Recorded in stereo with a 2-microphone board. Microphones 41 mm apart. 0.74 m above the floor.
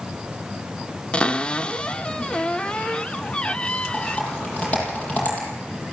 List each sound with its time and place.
1.1 s a cupboard door: 25° left (ahead or behind), 0.6 m
3.9 s typing on a keyboard: 30° left (ahead or behind), 8.5 m